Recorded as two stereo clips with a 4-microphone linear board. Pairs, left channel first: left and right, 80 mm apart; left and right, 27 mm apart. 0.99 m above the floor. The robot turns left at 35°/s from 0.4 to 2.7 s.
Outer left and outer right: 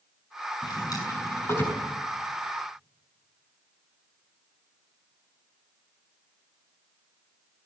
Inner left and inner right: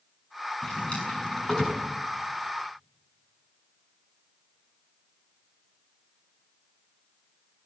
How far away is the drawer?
About 6.5 m.